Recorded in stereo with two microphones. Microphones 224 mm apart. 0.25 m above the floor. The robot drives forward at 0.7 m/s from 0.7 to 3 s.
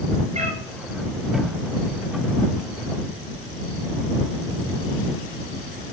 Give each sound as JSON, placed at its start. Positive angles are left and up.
{"t": 0.3, "sound": "a cat meowing", "side_deg": -30, "distance_m": 2.0}